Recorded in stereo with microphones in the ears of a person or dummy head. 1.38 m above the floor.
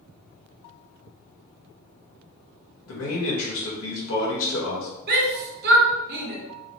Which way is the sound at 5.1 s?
55° right (ahead or behind).